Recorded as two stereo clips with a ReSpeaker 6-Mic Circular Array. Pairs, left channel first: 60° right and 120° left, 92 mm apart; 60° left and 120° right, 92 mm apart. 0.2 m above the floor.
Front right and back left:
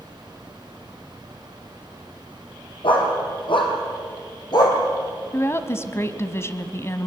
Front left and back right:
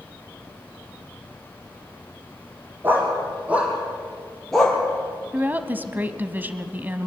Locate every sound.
2.8 s a dog barking: 50° right, 5 m; by 4.8 s 20° right, 3 m
5.3 s a woman speaking: 70° right, 1.1 m